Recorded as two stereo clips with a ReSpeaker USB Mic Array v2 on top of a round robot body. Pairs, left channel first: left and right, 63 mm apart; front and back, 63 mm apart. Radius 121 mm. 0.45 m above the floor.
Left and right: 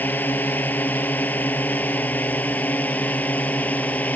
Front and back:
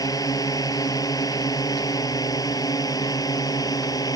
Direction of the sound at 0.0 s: 25° left.